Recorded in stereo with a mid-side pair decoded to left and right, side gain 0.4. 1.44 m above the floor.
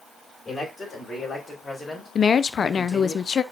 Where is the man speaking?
35° left, 5.5 m; by 3.1 s 25° left, 4 m.